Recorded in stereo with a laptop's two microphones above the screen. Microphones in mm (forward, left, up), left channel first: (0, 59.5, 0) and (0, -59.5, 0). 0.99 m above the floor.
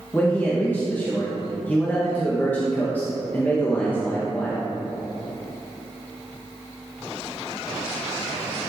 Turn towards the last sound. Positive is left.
turn(degrees=15)  # may be behind; listen again after turning